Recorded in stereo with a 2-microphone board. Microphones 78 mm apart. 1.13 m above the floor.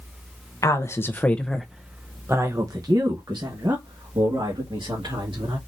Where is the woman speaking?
40° left (ahead or behind), 0.9 m; by 5.6 s 75° right (ahead or behind), 2.5 m.